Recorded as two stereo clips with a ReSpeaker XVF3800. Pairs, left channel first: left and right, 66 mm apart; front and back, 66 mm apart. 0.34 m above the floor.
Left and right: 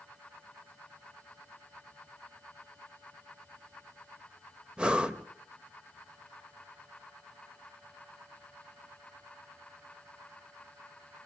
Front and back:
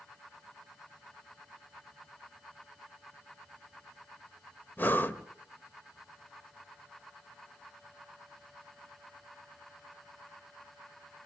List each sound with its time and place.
4.8 s breathing: 25° right, 1.2 m